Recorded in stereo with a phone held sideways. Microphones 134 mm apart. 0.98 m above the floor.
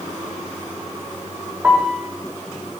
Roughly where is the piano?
Centre.